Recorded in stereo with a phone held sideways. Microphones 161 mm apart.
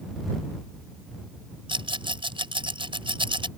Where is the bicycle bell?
No bicycle bell in this recording.